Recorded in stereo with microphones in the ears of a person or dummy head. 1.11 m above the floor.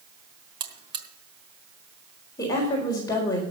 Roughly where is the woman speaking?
Left.